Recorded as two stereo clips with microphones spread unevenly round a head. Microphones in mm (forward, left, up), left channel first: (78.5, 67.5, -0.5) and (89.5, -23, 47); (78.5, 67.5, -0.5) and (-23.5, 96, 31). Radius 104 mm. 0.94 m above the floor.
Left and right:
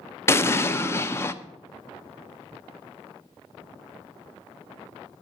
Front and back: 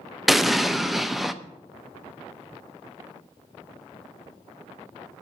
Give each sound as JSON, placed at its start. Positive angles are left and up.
{"t": 0.3, "sound": "an explosion", "azimuth_deg": 65, "distance_m": 0.8}